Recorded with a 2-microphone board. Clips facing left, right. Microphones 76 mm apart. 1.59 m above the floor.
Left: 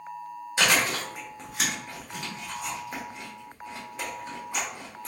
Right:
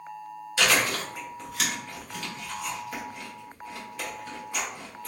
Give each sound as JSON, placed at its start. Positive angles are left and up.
{"t": 0.6, "sound": "chewing", "side_deg": 25, "distance_m": 1.2}